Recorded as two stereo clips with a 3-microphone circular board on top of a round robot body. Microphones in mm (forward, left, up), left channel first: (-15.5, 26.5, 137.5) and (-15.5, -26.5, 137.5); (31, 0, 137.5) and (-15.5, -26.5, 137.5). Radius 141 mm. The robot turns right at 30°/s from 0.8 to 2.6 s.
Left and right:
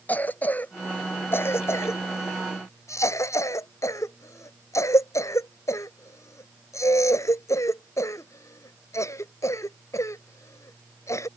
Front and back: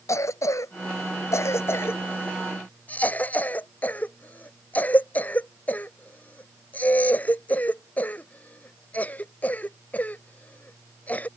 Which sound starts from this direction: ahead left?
A cough, at 0.1 s.